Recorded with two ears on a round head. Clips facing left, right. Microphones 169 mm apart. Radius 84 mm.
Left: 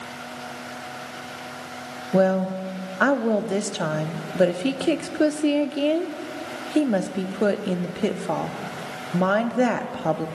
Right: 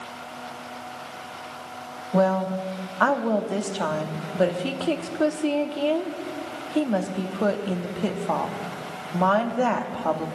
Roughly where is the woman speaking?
Left.